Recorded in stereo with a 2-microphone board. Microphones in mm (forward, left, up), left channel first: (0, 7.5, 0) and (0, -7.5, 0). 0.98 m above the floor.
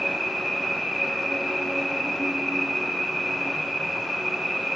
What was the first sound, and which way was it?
An insect, 75° right (ahead or behind).